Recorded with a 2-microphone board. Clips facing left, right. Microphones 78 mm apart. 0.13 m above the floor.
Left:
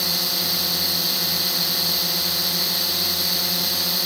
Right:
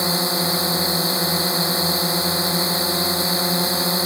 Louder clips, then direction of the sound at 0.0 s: Right 8 dB; 30° right (ahead or behind).